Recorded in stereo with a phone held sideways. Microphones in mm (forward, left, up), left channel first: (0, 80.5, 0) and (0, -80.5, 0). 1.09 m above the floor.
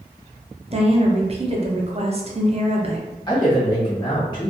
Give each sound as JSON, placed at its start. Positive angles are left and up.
{"t": 0.7, "sound": "a woman speaking", "side_deg": -40, "distance_m": 0.5}
{"t": 3.3, "sound": "a man speaking", "side_deg": 30, "distance_m": 1.3}